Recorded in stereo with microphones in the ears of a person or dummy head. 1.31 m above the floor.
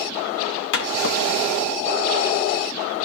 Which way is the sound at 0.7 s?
50° left (ahead or behind).